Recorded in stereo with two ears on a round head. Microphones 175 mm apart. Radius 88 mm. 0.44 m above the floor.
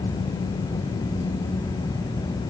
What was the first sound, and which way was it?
Only background noise.